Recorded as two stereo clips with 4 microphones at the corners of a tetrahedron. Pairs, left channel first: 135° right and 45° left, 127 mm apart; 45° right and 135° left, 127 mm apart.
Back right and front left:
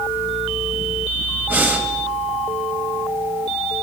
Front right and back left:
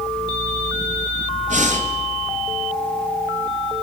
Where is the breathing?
120° left, 1.5 m.